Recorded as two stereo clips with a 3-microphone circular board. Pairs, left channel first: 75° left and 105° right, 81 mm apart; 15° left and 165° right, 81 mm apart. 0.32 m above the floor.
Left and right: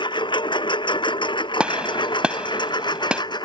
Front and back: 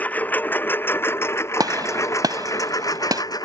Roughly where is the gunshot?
Behind.